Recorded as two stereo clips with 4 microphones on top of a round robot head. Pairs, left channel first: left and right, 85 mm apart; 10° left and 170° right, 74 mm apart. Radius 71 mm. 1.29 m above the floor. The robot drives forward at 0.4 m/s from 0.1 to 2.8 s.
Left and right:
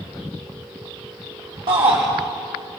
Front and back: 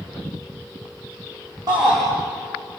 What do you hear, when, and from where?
1.7 s a shout: 120° right, 5 m